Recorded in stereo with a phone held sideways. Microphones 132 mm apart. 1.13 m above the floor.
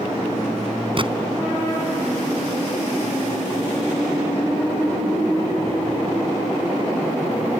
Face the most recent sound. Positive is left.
turn(degrees=-40)  # may be behind; listen again after turning